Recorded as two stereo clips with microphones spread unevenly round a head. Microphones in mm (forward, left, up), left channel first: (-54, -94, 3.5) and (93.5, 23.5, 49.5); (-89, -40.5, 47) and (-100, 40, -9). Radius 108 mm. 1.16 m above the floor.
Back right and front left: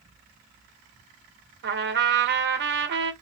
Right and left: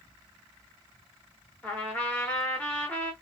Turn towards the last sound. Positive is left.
turn(degrees=35)